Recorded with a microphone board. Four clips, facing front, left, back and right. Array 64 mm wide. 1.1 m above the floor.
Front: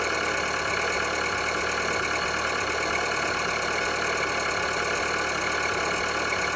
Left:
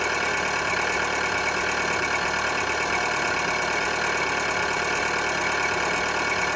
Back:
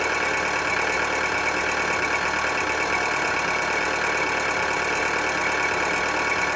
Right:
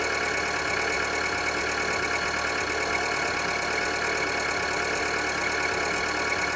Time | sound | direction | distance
0.0 | an engine running | 160° left | 2 m